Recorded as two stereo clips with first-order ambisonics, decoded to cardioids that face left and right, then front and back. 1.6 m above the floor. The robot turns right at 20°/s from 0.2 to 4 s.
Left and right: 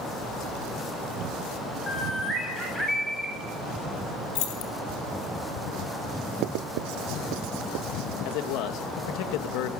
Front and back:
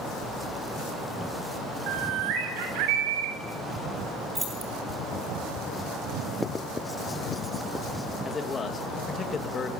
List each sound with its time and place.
1.9 s a bird: 155° left, 6.5 m; by 3.3 s 175° right, 6.5 m
4.3 s keys jangling: 105° left, 3 m
6.4 s writing: 80° right, 0.5 m
8.2 s a man speaking: 70° left, 3 m